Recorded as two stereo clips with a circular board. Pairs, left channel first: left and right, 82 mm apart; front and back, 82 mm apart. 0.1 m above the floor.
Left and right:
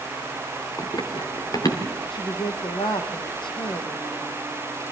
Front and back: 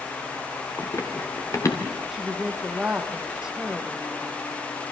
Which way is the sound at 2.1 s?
95° left.